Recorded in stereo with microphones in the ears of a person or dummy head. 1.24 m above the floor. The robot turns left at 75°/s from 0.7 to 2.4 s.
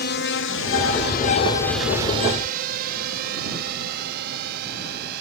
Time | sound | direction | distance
0.0 | a drone | 55° left (ahead or behind) | ?